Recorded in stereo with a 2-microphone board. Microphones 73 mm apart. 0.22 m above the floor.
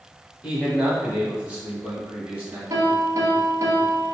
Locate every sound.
0.4 s a man speaking: 15° right (ahead or behind), 1.1 m; by 2.6 s 20° right (ahead or behind), 1.1 m
2.7 s a piano: 45° right (ahead or behind), 1.0 m